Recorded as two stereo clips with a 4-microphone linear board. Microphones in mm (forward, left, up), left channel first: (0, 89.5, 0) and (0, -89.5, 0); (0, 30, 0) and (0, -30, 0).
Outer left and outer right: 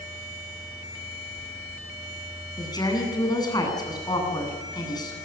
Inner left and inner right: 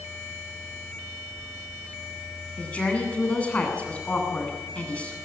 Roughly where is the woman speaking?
Left.